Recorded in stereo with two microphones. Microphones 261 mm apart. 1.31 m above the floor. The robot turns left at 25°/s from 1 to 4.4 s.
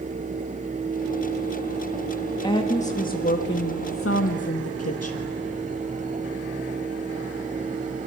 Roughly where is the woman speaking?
Behind.